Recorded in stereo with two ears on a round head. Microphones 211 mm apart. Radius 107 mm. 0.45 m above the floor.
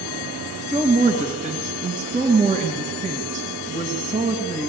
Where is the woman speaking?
35° right (ahead or behind), 3.5 m.